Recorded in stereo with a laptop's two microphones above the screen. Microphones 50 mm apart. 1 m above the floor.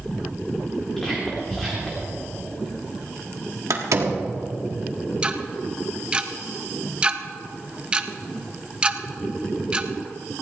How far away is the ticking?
About 0.5 m.